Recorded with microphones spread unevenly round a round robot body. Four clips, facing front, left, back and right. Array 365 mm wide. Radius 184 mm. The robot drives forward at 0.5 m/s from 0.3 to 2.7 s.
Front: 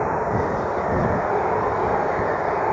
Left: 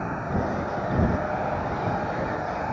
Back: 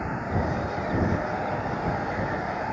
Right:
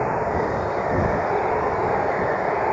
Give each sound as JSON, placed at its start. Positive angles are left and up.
{"t": 0.0, "sound": "running water", "azimuth_deg": -35}